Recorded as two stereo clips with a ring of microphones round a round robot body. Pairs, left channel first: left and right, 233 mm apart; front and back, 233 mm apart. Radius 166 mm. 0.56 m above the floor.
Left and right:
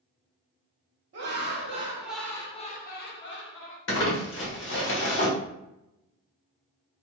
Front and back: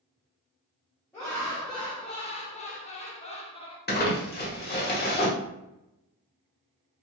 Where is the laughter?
75° right, 0.8 m; by 3.8 s 65° left, 1.1 m.